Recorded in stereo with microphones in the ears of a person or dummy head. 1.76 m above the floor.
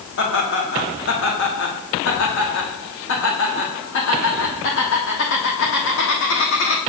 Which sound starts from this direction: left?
Laughter, at 0.2 s.